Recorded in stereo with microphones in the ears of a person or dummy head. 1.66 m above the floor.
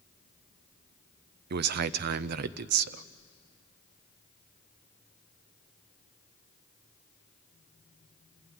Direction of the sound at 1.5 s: 55° right (ahead or behind).